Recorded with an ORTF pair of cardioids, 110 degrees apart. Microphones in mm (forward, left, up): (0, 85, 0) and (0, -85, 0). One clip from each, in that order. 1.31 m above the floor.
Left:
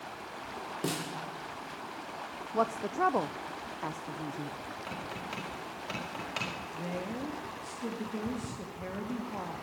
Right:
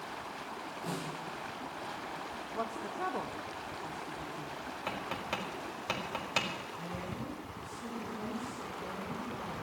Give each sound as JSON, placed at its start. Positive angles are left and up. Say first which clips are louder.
{"t": 0.8, "sound": "a snare drum", "louder": "left 5 dB", "azimuth_deg": 70, "distance_m": 2.0}
{"t": 2.5, "sound": "a woman speaking", "louder": "left 8 dB", "azimuth_deg": 40, "distance_m": 0.6}
{"t": 4.9, "sound": "tapping", "louder": "right 4 dB", "azimuth_deg": -35, "distance_m": 5.5}
{"t": 6.7, "sound": "a woman speaking", "louder": "left 4 dB", "azimuth_deg": 50, "distance_m": 2.5}